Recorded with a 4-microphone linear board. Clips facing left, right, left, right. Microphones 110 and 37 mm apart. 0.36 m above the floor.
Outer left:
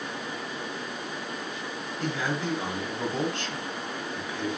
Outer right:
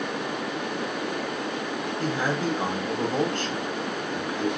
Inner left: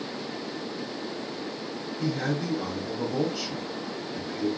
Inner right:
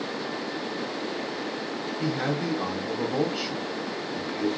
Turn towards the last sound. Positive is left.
turn(degrees=-40)  # may be behind; listen again after turning